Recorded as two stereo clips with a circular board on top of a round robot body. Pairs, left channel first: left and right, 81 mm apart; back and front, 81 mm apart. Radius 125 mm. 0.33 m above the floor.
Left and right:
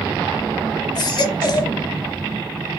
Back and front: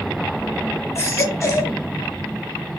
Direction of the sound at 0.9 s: 125° left.